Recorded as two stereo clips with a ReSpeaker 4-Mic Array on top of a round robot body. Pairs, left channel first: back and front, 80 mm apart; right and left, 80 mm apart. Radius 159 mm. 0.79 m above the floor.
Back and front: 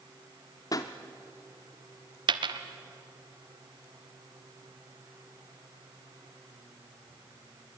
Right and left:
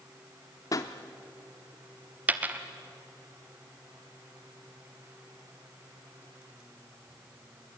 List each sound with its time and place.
0.7 s a pop: 135° right, 0.5 m
2.3 s a dropped coin: 20° left, 1.0 m